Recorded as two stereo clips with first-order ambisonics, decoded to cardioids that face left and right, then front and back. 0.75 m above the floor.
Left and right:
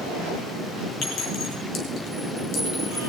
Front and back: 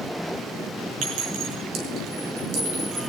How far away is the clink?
About 5 m.